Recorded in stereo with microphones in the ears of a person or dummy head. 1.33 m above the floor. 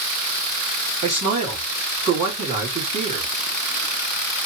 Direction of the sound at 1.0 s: 40° right (ahead or behind).